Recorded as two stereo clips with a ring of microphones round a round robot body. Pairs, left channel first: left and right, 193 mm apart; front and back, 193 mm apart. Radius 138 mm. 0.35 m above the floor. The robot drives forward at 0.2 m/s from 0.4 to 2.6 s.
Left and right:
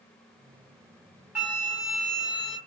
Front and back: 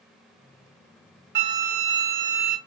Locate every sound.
1.4 s a flute: 175° right, 0.6 m